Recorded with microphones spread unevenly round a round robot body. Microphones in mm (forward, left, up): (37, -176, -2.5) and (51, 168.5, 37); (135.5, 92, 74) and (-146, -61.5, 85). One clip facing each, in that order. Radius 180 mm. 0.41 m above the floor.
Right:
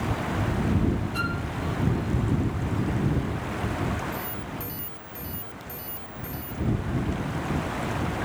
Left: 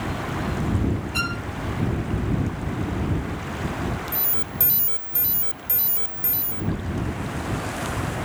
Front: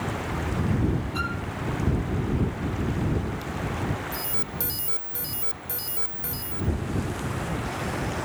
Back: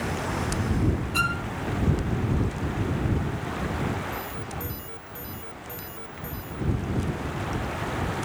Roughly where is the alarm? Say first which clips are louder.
Even, even; ahead left.